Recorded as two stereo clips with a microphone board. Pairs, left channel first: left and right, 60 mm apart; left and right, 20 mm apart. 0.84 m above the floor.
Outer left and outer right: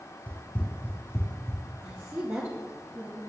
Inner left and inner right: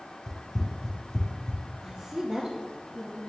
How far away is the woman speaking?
About 1.3 m.